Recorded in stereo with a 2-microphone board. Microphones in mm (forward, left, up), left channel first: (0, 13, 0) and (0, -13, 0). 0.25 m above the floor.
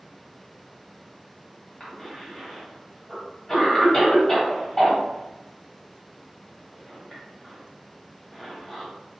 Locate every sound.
1.8 s a cough: 20° left (ahead or behind), 1.6 m